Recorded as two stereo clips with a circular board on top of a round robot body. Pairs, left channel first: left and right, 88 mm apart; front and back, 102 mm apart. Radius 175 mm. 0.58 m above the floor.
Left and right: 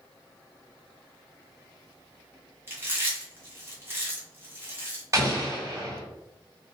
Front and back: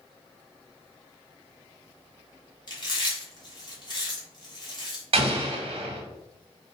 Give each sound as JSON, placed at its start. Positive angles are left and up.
{"t": 2.7, "sound": "chewing", "azimuth_deg": -30, "distance_m": 1.9}
{"t": 5.1, "sound": "an explosion", "azimuth_deg": -150, "distance_m": 0.7}